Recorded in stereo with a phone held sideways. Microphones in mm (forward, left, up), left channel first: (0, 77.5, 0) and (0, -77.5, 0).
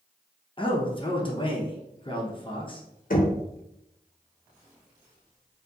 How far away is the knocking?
About 0.7 m.